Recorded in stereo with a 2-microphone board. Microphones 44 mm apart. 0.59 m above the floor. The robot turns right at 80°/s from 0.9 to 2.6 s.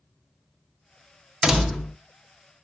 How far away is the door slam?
About 0.6 m.